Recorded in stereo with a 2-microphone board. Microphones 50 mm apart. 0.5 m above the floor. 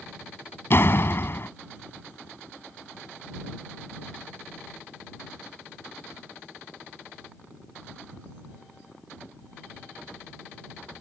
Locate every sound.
0.7 s a door slam: 50° left (ahead or behind)